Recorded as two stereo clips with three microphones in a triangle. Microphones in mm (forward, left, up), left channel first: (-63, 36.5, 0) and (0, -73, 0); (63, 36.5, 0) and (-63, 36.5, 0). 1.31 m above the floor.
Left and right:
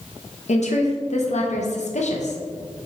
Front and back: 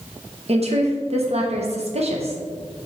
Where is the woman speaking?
145° left, 0.8 m.